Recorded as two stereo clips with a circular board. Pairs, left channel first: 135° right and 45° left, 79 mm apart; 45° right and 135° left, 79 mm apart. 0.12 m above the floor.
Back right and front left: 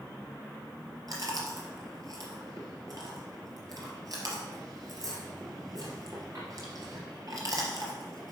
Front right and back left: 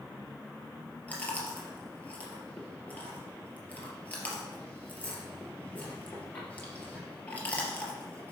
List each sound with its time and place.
1.1 s chewing: 20° left, 3 m